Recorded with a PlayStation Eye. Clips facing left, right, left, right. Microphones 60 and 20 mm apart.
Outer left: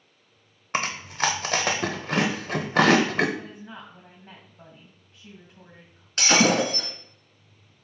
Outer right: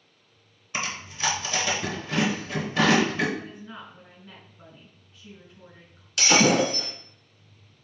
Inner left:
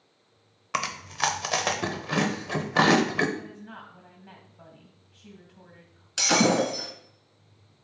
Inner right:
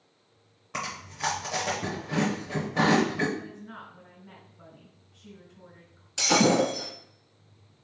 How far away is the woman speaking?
About 2.5 m.